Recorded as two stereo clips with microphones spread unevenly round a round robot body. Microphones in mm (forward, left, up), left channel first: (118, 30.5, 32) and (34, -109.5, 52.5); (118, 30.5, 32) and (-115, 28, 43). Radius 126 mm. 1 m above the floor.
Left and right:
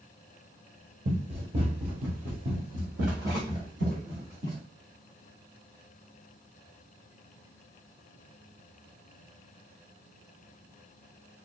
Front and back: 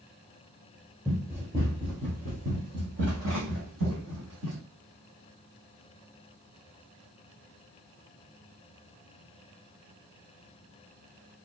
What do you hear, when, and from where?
1.1 s running footsteps: 95° right, 1.3 m; by 4.6 s 170° right, 2 m